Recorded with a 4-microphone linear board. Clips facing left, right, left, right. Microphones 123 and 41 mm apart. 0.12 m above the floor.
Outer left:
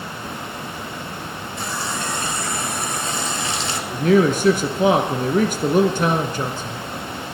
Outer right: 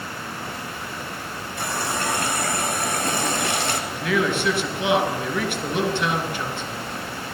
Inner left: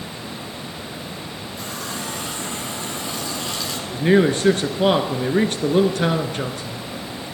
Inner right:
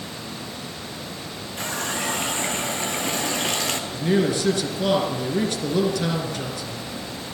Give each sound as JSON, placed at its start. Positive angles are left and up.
{"t": 1.6, "sound": "a running tap", "side_deg": -55, "distance_m": 1.7}
{"t": 3.9, "sound": "a man speaking", "side_deg": 40, "distance_m": 1.7}